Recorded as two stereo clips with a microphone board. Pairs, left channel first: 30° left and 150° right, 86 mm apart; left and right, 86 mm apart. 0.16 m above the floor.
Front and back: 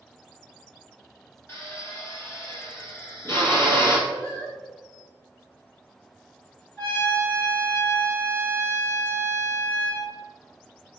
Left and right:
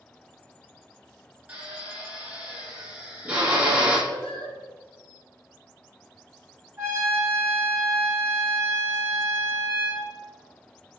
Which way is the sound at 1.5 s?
20° right.